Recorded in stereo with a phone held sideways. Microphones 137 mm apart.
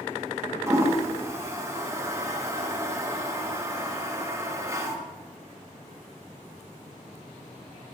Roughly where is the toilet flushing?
Centre.